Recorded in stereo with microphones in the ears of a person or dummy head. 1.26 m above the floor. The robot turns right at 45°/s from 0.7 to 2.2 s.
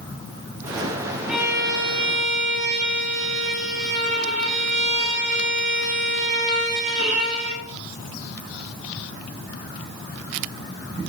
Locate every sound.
1.3 s a violin: 175° left, 1.2 m; by 7.6 s 140° right, 1.2 m